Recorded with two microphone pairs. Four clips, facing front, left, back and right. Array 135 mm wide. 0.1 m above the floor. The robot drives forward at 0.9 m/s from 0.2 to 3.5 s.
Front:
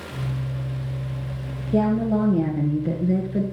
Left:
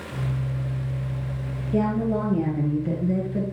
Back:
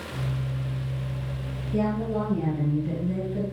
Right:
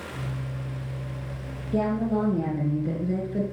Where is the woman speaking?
5° right, 2.5 m; by 3.4 s 10° right, 1.5 m.